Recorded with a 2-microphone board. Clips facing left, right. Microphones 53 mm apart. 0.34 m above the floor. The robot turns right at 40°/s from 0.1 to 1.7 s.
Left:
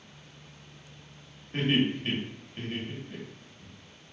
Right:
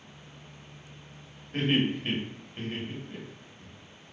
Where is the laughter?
5° left (ahead or behind), 1.0 m; by 3.7 s centre (ahead or behind), 1.0 m.